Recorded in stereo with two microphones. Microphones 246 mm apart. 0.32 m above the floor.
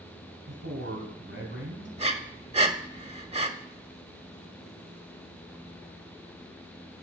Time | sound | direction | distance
0.5 | a man speaking | 50° right (ahead or behind) | 3 m
2.0 | breathing | 25° right (ahead or behind) | 0.9 m